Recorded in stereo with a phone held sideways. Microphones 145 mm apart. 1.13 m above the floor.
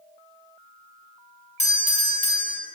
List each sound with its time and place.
1.6 s a doorbell: 50° left (ahead or behind), 1.0 m